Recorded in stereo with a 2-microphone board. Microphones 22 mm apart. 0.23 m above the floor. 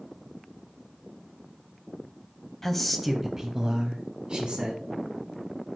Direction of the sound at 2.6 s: 15° left (ahead or behind).